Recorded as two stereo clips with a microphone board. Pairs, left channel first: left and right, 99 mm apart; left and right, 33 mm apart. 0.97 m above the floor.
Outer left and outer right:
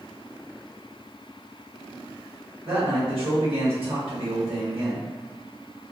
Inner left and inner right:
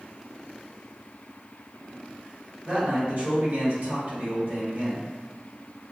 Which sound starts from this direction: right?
A man speaking, at 2.6 s.